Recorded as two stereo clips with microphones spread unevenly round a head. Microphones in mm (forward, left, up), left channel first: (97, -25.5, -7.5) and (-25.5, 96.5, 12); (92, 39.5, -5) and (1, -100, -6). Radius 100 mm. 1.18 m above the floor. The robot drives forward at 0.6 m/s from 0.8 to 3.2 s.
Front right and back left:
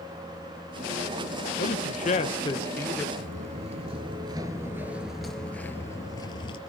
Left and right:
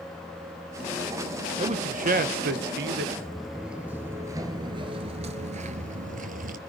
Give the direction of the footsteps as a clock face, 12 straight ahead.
7 o'clock.